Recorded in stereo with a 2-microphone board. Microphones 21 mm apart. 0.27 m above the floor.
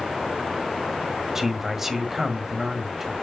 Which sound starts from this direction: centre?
A man speaking, at 1.4 s.